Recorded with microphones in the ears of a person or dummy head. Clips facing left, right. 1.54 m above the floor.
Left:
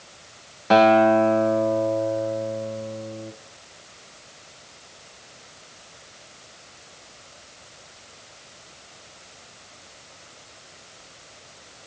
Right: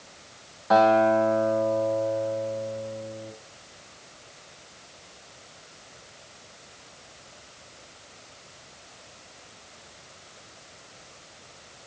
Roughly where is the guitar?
Left.